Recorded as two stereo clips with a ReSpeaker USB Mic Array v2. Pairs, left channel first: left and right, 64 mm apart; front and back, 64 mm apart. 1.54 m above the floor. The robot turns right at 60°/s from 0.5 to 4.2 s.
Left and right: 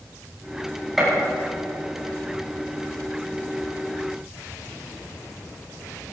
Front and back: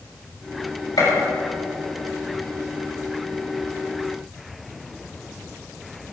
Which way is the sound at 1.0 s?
5° right.